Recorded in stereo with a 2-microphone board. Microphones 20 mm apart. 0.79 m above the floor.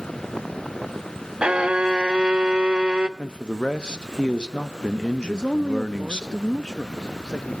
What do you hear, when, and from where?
1.4 s a violin: 55° right (ahead or behind), 0.5 m
3.2 s a man speaking: 50° left (ahead or behind), 0.7 m
5.2 s a man speaking: 40° left (ahead or behind), 0.6 m